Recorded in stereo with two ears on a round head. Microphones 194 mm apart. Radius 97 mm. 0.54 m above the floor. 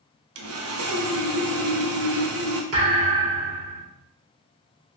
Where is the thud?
75° right (ahead or behind), 1.4 m.